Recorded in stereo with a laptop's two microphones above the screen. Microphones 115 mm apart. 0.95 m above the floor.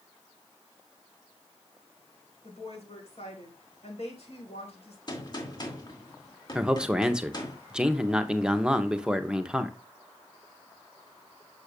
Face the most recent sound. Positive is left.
turn(degrees=-5)  # may be behind; listen again after turning